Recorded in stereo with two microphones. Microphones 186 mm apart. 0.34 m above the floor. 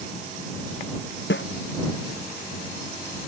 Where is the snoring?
No snoring in this recording.